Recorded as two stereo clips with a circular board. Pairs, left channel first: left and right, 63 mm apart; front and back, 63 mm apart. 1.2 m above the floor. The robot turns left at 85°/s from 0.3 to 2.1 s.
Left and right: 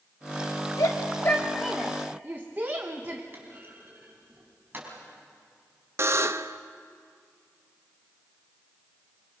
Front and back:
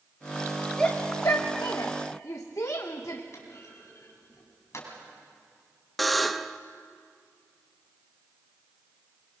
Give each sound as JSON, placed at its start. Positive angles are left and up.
{"t": 0.8, "sound": "a shout", "azimuth_deg": 80, "distance_m": 1.0}
{"t": 3.3, "sound": "a clunk", "azimuth_deg": -35, "distance_m": 4.0}
{"t": 6.0, "sound": "a buzzer", "azimuth_deg": -90, "distance_m": 0.6}